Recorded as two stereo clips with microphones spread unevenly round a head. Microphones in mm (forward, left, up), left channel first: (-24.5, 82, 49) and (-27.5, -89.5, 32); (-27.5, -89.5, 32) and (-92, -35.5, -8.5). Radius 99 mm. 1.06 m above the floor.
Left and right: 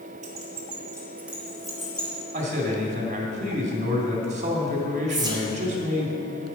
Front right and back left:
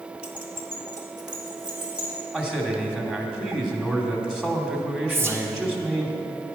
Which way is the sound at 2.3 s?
140° right.